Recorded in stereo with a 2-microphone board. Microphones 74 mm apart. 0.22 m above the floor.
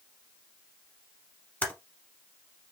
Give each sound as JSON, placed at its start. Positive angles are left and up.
{"t": 1.6, "sound": "typing on a keyboard", "side_deg": 20, "distance_m": 1.0}